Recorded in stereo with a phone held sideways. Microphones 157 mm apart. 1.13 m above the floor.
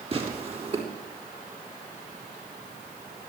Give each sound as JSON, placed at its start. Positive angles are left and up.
{"t": 0.1, "sound": "tearing paper", "side_deg": -40, "distance_m": 3.5}